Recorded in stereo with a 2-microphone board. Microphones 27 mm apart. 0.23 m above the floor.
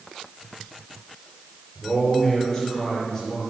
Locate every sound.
1.8 s a man speaking: 20° left (ahead or behind), 6 m